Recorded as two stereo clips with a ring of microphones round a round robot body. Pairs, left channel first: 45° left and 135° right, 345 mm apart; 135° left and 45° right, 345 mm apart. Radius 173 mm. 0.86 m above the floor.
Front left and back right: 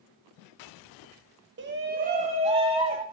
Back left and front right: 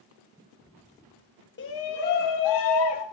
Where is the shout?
Straight behind, 1.2 m; by 3.0 s 150° left, 2.5 m.